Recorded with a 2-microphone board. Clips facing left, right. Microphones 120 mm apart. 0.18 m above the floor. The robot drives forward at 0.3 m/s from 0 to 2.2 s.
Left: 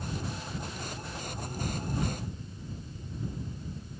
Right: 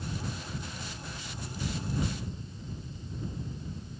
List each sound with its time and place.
Only background noise.